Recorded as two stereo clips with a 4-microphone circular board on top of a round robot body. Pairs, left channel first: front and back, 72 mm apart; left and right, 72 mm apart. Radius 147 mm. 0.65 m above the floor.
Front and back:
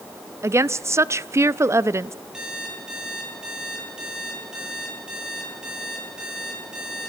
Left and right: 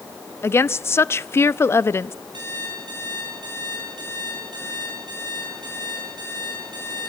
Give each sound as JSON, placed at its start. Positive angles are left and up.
{"t": 0.4, "sound": "a woman speaking", "azimuth_deg": 140, "distance_m": 0.8}
{"t": 2.3, "sound": "an alarm clock", "azimuth_deg": -100, "distance_m": 10.0}